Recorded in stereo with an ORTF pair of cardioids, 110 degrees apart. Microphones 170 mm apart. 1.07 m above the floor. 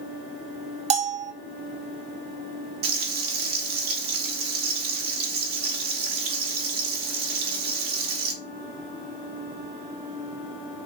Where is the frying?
65° right, 1.0 m.